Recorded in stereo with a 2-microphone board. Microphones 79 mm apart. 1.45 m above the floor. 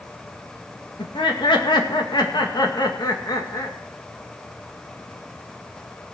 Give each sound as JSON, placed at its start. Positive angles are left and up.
{"t": 1.0, "sound": "laughter", "side_deg": 85, "distance_m": 2.5}